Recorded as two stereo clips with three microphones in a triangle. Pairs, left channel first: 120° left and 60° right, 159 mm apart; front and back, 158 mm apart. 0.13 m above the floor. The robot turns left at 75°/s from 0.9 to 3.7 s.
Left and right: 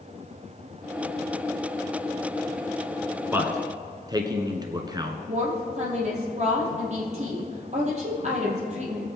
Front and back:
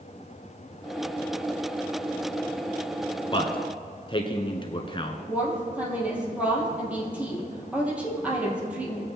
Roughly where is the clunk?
No clunk in this recording.